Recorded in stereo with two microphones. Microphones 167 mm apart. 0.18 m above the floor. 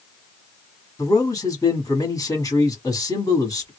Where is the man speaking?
20° left (ahead or behind), 1.3 m.